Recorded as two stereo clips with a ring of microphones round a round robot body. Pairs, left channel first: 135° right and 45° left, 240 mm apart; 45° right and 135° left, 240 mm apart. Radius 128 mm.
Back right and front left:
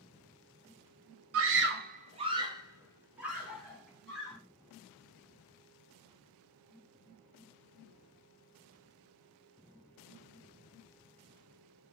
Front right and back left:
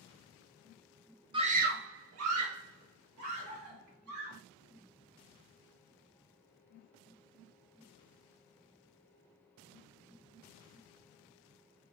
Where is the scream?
65° left, 0.6 m; by 4.4 s 140° left, 2 m.